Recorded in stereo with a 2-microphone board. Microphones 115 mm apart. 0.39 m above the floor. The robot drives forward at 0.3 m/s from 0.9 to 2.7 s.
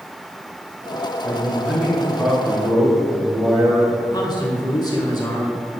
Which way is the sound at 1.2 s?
5° right (ahead or behind).